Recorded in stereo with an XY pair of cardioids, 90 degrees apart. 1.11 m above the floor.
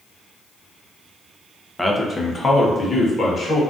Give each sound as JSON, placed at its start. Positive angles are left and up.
{"t": 1.8, "sound": "a man speaking", "azimuth_deg": 10, "distance_m": 0.5}